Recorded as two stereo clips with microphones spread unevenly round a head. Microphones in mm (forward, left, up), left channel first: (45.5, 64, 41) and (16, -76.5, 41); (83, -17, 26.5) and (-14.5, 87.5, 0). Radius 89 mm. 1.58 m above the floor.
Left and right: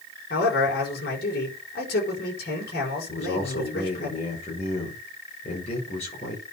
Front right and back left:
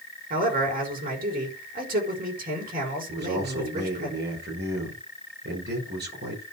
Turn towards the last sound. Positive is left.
turn(degrees=130)